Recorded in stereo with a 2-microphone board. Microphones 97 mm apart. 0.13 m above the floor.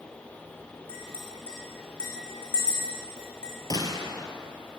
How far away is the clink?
About 5.5 m.